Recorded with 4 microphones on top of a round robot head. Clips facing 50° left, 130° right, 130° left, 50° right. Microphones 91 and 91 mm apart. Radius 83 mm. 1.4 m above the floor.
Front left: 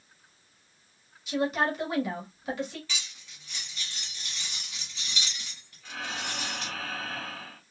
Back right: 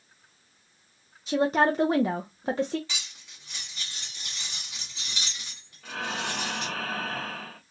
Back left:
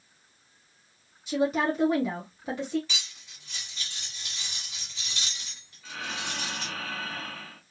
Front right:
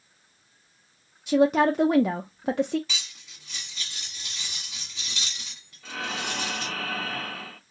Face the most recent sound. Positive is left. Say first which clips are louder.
# back right 4 dB, front right 4 dB
turn(degrees=-90)